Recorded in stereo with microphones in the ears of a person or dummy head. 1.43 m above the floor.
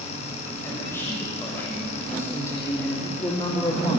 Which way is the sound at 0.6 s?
15° left (ahead or behind).